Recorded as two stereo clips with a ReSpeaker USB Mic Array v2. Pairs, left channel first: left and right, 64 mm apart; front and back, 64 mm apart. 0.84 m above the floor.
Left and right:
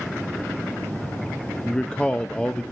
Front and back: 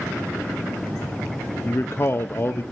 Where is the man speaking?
20° left, 0.6 m.